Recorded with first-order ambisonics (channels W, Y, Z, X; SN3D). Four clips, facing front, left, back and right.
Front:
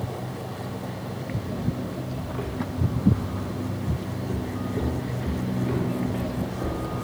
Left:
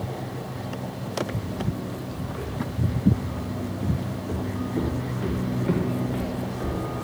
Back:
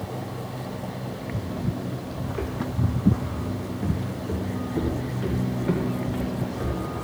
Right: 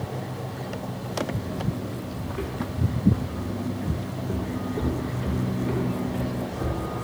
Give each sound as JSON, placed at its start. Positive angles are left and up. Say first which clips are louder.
{"t": 2.3, "sound": "footsteps", "louder": "right 2 dB, back 3 dB", "azimuth_deg": -170, "distance_m": 1.8}